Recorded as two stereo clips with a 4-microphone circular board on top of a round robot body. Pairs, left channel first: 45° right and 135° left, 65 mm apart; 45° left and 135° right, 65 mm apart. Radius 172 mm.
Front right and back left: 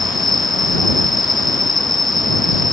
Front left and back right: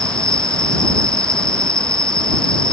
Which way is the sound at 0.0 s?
35° right.